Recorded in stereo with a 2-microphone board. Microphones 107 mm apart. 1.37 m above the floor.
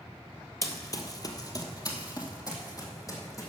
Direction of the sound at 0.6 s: 30° left (ahead or behind).